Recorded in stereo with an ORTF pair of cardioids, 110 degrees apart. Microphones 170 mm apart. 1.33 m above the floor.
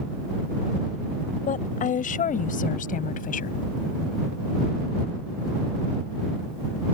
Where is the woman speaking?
50° left; by 3.6 s 55° left.